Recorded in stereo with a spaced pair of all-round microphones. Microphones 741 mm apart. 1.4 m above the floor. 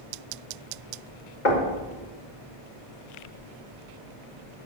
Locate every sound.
1.4 s knocking: 80° left, 1.6 m